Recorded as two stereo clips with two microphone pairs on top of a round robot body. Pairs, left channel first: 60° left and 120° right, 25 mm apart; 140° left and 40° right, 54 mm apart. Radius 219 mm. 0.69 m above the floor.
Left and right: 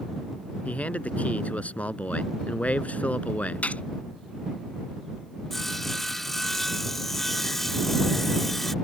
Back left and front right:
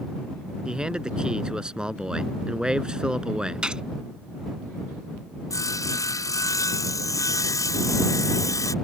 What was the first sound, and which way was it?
A man speaking, 35° left.